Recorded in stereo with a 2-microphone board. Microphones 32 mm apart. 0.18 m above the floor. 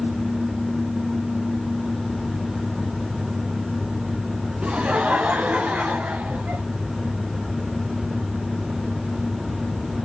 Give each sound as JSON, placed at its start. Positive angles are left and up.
{"t": 4.6, "sound": "laughter", "side_deg": -45, "distance_m": 1.6}